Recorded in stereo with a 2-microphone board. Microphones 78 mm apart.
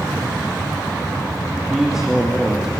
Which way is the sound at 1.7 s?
5° right (ahead or behind).